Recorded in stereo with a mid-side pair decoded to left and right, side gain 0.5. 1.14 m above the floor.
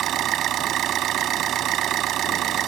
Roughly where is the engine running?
Ahead right.